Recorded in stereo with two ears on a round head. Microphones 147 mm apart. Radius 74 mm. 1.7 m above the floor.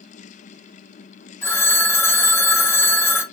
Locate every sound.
1.4 s a phone ringing: 15° left (ahead or behind), 1.2 m